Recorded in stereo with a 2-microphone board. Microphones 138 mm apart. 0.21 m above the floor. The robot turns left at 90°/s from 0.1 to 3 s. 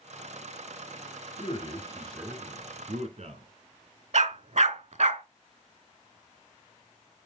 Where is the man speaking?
70° left, 2.5 m; by 3.5 s 75° right, 2.5 m.